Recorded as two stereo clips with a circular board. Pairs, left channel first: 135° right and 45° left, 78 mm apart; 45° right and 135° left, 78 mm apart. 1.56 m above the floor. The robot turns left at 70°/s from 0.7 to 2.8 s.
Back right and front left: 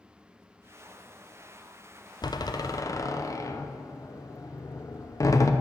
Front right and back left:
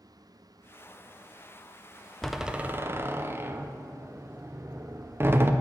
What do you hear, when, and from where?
2.2 s a door slam: 130° right, 0.6 m; by 5.5 s 170° right, 0.6 m